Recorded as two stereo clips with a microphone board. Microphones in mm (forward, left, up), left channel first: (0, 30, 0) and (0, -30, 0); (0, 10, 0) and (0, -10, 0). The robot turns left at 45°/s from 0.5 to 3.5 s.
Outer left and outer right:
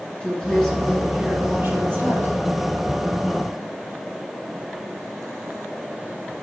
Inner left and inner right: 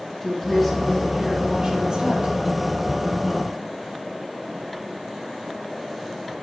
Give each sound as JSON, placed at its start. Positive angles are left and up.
{"t": 0.2, "sound": "a woman speaking", "azimuth_deg": 20, "distance_m": 3.0}